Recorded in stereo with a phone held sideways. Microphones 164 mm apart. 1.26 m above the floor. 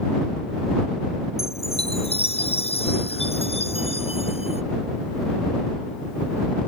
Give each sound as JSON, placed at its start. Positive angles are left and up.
{"t": 1.4, "sound": "a chime", "side_deg": 35}